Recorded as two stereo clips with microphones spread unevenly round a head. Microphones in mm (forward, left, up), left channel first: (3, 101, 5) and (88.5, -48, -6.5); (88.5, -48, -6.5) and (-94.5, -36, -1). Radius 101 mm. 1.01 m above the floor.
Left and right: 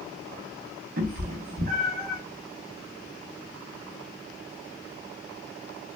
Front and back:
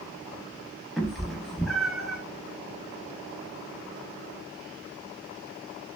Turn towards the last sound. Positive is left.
turn(degrees=-95)